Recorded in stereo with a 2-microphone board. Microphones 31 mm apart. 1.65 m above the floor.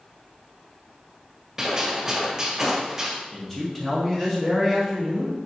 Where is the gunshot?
15° right (ahead or behind), 1.3 m.